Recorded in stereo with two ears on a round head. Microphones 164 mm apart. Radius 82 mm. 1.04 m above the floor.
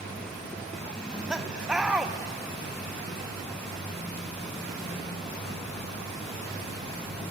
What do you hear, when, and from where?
1.0 s laughter: 5° right (ahead or behind), 0.7 m